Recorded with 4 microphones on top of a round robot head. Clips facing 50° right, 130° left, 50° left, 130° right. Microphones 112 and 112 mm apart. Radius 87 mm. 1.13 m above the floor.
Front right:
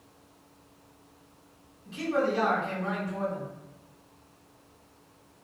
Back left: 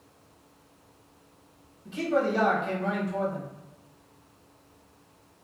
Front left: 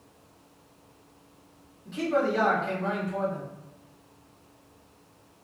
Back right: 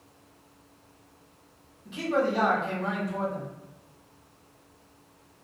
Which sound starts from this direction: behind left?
A man speaking, at 1.9 s.